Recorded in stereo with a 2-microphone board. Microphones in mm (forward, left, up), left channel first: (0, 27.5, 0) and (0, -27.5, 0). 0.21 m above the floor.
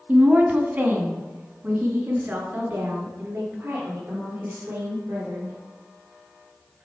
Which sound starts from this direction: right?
A woman speaking, at 0.1 s.